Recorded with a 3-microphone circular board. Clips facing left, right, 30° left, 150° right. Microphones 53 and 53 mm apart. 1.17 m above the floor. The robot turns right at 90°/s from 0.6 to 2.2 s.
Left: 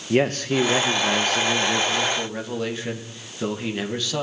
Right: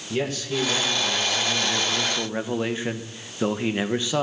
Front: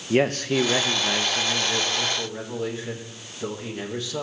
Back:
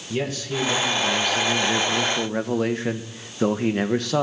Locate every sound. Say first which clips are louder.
0.1 s a man speaking: left 6 dB, front 6 dB; 60° left, 1.2 m; by 4.2 s 155° right, 1.2 m